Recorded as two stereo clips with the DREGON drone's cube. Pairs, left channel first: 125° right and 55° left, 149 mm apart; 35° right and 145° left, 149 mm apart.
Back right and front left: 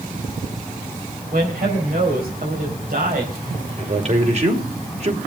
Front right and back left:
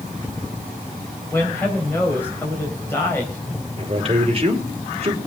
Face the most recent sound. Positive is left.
turn(degrees=95)